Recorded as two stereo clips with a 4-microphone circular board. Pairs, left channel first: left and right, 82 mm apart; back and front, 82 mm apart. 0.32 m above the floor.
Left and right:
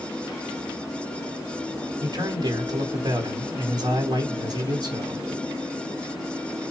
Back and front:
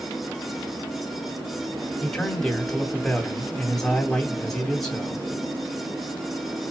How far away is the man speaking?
About 2.5 m.